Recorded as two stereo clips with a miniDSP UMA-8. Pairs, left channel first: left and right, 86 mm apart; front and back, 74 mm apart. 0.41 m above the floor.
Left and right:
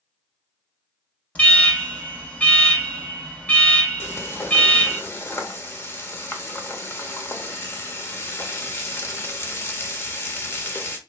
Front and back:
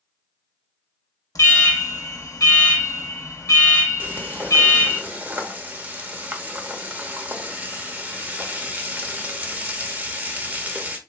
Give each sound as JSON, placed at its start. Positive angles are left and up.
{"t": 1.4, "sound": "an alarm", "azimuth_deg": 20, "distance_m": 1.1}
{"t": 4.0, "sound": "frying", "azimuth_deg": 125, "distance_m": 0.7}